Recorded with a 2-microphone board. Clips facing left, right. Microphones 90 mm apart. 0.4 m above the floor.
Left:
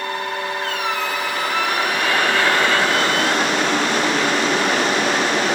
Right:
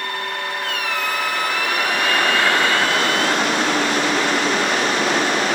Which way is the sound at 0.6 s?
30° left (ahead or behind).